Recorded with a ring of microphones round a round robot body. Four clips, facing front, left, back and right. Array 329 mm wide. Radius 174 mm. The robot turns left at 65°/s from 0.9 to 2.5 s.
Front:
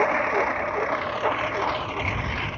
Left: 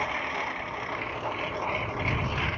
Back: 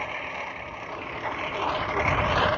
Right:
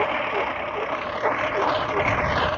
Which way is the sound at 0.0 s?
30° right.